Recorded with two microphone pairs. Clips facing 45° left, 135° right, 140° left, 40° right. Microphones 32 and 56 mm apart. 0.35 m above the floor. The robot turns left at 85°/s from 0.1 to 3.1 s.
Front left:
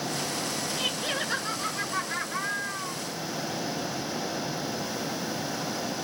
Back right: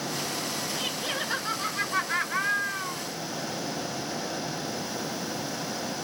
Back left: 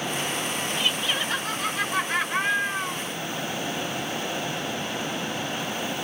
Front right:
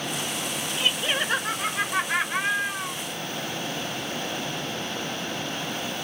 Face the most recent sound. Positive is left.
turn(degrees=170)